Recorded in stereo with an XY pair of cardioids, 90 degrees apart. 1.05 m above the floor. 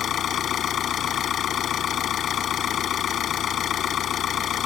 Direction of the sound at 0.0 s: 70° left.